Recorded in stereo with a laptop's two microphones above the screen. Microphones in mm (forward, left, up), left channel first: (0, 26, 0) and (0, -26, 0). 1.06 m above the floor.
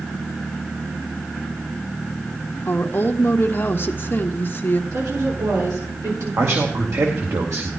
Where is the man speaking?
75° right (ahead or behind), 2 m.